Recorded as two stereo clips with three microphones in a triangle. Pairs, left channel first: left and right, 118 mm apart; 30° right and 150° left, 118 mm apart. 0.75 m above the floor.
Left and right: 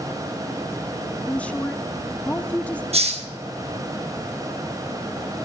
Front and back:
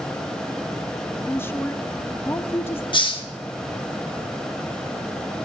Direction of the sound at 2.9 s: 70° right.